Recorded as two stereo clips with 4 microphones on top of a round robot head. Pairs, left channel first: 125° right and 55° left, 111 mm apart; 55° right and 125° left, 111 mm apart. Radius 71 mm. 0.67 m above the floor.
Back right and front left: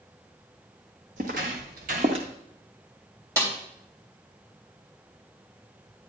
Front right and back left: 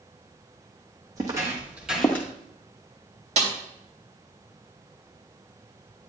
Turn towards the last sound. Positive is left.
turn(degrees=120)